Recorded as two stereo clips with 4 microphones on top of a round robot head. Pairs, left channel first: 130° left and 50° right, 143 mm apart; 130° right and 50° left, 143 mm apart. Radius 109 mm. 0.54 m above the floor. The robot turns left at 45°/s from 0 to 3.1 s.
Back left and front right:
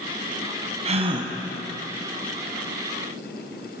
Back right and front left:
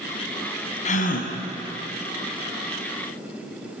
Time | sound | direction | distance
0.8 | a gasp | 95° right | 3 m